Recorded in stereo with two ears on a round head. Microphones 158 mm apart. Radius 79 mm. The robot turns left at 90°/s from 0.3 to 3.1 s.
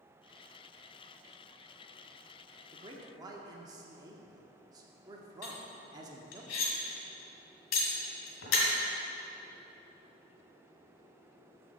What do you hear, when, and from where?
2.7 s a man speaking: 100° right, 0.9 m; by 6.4 s 135° right, 0.9 m
5.4 s cutlery clinking: 80° left, 1.9 m